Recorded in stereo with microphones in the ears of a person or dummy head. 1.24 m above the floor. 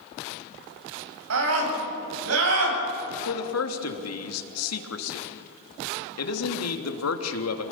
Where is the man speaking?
80° left, 2.5 m.